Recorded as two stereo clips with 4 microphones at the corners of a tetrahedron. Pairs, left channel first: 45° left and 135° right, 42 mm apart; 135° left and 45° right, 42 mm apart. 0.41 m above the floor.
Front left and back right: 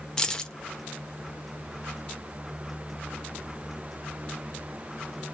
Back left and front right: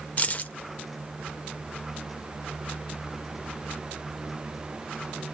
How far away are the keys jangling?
About 0.5 m.